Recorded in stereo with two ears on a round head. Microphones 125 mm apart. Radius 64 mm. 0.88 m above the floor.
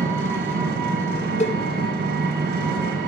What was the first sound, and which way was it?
An engine running, 75° right (ahead or behind).